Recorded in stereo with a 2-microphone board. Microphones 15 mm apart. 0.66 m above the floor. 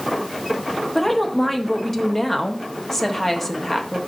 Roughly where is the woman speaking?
Centre.